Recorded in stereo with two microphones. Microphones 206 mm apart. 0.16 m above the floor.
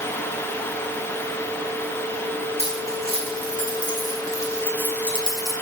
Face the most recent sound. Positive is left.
turn(degrees=0)  # may be behind; listen again after turning